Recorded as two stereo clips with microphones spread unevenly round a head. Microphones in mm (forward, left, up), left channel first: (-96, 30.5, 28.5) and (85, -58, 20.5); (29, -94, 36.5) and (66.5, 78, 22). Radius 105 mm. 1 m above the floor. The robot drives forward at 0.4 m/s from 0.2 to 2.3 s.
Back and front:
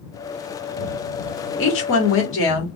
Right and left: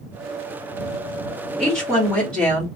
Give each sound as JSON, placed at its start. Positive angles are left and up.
{"t": 1.6, "sound": "a woman speaking", "azimuth_deg": 170, "distance_m": 1.2}